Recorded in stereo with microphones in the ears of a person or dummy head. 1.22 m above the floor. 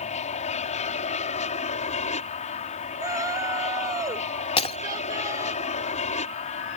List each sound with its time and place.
0.0 s an aircraft: 35° left (ahead or behind)
3.0 s a shout: 15° right (ahead or behind)
4.6 s breaking glass: 35° left (ahead or behind)